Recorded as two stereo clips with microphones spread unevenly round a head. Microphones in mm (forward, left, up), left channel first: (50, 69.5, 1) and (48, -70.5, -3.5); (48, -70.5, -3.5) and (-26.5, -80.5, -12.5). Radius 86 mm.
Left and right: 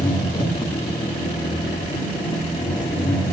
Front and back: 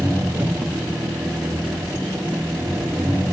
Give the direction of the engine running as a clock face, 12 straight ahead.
8 o'clock.